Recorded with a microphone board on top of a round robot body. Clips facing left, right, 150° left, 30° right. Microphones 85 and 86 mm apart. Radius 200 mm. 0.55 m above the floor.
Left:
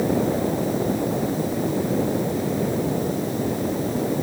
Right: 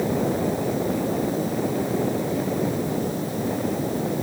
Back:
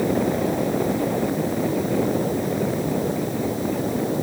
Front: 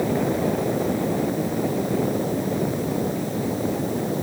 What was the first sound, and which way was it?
Only background noise.